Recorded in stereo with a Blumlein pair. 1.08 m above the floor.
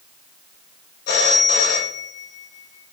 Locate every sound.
1.1 s a phone ringing: 50° left, 0.8 m